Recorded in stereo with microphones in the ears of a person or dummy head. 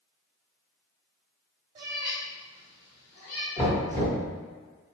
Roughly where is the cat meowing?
Right.